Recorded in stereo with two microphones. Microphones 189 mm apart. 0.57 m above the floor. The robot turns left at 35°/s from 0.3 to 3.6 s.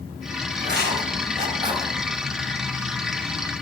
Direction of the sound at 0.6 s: 65° right (ahead or behind).